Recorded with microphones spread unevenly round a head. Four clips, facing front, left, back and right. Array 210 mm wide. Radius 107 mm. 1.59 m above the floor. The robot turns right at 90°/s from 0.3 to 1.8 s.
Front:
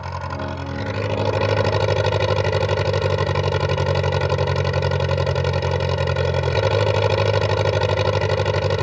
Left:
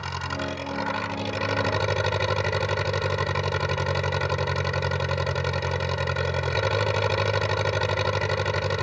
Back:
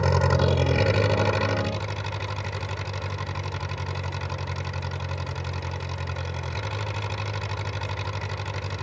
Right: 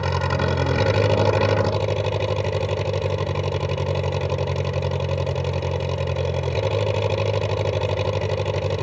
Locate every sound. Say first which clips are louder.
0.0 s an engine running: right 8 dB, back 5 dB; 155° right; by 8.8 s 20° right